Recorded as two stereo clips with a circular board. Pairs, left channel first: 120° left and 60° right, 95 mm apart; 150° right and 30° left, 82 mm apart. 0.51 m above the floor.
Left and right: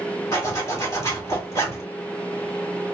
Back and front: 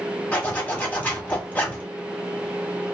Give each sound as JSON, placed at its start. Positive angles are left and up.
{"t": 0.3, "sound": "a zipper", "azimuth_deg": 155, "distance_m": 1.6}